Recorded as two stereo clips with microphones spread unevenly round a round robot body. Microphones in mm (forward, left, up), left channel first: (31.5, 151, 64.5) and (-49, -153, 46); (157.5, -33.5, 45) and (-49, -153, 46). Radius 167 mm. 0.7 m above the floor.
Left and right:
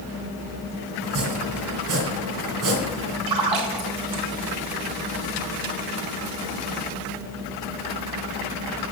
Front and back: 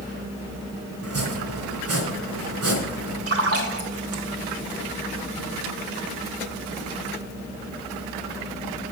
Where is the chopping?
135° right, 3 m.